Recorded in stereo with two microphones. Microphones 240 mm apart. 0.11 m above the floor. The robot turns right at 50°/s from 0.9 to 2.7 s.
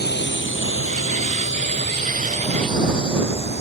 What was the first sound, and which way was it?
A drone, 45° left (ahead or behind).